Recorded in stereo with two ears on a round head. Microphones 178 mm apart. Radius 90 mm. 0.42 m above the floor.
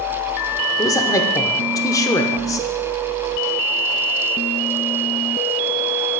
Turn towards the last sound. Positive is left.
turn(degrees=20)  # may be behind; listen again after turning